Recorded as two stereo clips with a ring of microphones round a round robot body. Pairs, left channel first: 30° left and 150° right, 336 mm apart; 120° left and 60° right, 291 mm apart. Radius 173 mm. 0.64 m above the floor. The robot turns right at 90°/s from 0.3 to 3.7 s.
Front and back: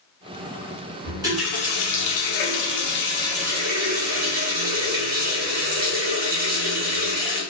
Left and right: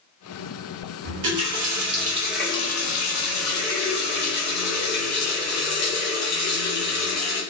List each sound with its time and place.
1.0 s a running tap: 90° right, 0.9 m; by 7.4 s 150° left, 0.9 m